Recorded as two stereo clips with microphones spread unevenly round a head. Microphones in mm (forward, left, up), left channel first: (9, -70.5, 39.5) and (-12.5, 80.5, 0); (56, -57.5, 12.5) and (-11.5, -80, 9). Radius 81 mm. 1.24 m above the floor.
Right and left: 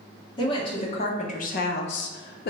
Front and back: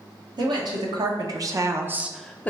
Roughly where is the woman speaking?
Behind right.